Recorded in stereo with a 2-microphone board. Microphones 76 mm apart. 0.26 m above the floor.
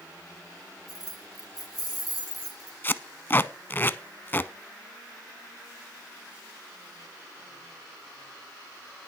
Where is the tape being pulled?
30° left (ahead or behind), 0.6 m.